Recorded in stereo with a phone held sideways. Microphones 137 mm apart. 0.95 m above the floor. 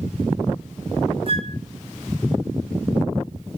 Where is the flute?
45° right (ahead or behind), 0.7 m.